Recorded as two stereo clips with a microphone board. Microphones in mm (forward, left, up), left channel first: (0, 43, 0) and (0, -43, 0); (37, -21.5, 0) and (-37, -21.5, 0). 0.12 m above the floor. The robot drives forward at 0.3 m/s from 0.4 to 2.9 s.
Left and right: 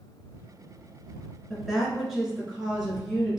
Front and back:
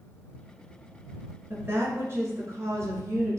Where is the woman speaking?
175° right, 1.4 m.